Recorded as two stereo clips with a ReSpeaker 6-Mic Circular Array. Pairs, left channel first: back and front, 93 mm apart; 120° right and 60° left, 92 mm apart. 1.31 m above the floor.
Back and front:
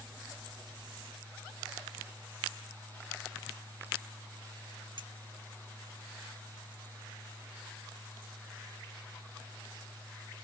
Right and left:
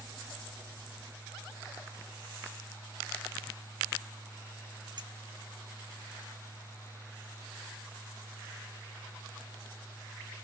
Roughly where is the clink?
Ahead left.